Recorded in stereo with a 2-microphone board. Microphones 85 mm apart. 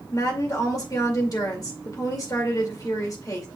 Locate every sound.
0.1 s a woman speaking: 45° left (ahead or behind), 2.5 m